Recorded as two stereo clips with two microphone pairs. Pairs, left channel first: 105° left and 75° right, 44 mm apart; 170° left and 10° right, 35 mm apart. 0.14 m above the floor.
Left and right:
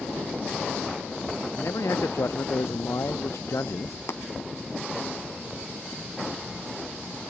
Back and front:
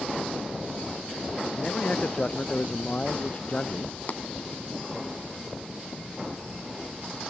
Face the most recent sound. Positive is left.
turn(degrees=130)